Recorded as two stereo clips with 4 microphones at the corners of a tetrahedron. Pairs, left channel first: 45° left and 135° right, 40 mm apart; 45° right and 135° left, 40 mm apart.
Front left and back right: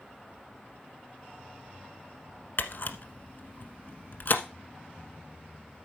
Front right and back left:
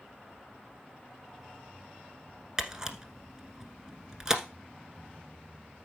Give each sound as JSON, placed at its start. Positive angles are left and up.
{"t": 2.6, "sound": "a camera shutter", "azimuth_deg": 65, "distance_m": 1.1}